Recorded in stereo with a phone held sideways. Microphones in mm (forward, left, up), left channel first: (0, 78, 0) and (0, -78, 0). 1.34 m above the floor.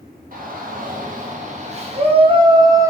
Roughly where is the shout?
Right.